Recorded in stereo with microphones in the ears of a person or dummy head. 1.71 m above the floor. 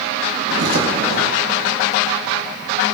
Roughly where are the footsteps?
Right.